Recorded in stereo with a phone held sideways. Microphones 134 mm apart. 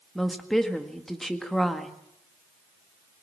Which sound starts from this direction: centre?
A woman speaking, at 0.1 s.